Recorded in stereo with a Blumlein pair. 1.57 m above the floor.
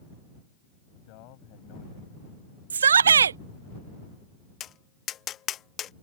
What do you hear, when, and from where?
0.9 s a man speaking: 45° left; by 3.7 s 50° left
2.7 s a shout: 70° right
4.6 s tapping: 30° left